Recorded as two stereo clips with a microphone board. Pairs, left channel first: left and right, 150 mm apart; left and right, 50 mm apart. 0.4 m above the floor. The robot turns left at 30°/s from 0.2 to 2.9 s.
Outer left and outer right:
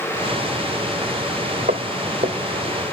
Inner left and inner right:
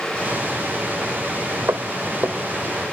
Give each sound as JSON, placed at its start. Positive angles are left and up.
{"t": 1.7, "sound": "footsteps", "side_deg": -70, "distance_m": 2.0}